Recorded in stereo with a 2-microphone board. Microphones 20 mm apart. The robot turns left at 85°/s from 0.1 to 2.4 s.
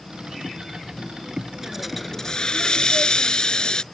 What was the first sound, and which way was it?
A hiss, 160° right.